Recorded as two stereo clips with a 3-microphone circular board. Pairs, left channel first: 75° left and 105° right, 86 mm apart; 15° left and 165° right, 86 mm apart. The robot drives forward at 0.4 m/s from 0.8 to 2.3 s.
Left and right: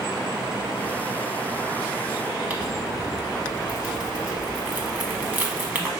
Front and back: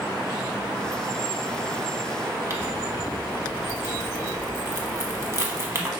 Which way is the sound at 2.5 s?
160° right.